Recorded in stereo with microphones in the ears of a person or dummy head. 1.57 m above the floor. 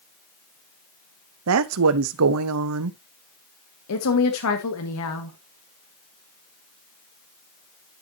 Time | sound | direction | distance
1.5 | a woman speaking | 80° right | 0.7 m
3.9 | a woman speaking | 80° left | 1.7 m